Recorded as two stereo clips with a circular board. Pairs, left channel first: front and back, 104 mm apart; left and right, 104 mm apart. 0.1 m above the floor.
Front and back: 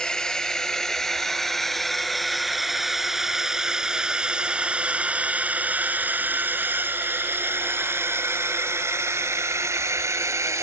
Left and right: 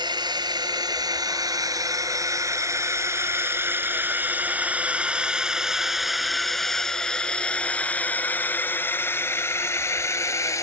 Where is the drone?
80° right; by 10.6 s 135° left.